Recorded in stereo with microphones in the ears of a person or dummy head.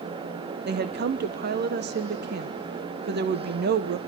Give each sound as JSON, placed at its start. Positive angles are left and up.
{"t": 0.7, "sound": "a woman speaking", "side_deg": -60, "distance_m": 1.0}